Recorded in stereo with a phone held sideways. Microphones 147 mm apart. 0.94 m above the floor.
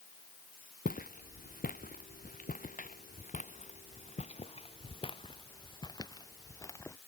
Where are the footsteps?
70° left (ahead or behind); by 7.0 s 20° left (ahead or behind).